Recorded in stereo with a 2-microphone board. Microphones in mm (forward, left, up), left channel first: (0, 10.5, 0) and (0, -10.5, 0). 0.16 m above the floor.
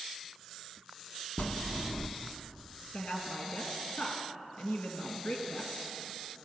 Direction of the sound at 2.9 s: 60° left (ahead or behind).